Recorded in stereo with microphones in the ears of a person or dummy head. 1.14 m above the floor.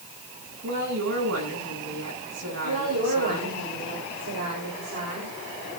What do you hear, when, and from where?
0.6 s a woman speaking: 90° right, 10 m
2.6 s a woman speaking: 75° right (ahead or behind), 6 m